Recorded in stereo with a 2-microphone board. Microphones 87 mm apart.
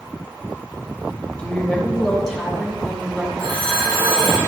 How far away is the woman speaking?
About 3 m.